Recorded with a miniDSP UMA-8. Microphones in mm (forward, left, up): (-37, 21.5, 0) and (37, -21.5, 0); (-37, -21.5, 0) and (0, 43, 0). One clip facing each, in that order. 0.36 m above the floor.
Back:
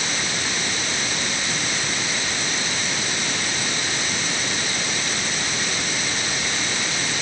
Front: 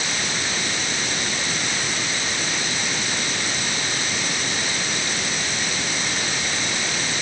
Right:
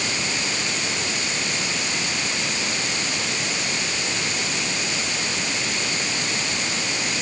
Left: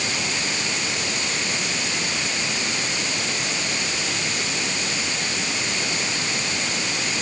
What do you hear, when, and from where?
Only background noise.